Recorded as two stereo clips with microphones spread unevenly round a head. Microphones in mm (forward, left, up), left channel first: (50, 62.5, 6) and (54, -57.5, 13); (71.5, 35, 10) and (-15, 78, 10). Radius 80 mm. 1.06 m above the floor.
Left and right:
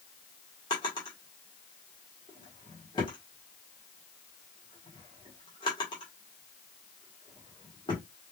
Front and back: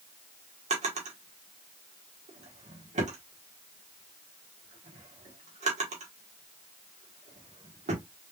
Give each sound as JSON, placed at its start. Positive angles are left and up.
{"t": 0.7, "sound": "a drawer", "azimuth_deg": 160, "distance_m": 1.6}